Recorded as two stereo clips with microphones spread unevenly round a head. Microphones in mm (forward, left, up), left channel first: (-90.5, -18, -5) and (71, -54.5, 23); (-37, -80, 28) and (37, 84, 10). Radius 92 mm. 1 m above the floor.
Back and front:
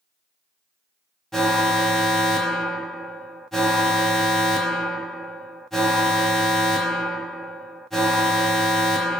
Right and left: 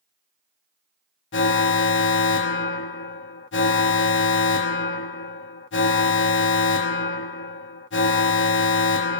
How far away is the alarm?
About 0.9 m.